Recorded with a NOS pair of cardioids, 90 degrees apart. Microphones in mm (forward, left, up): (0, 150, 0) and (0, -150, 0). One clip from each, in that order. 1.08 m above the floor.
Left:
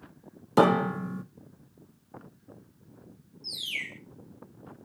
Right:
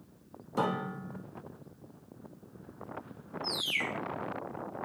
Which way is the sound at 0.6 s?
60° left.